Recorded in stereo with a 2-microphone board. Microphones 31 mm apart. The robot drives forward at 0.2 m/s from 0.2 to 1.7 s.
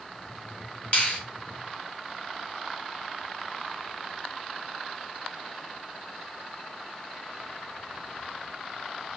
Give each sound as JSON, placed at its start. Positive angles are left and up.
{"t": 0.9, "sound": "a finger snap", "side_deg": 40, "distance_m": 1.0}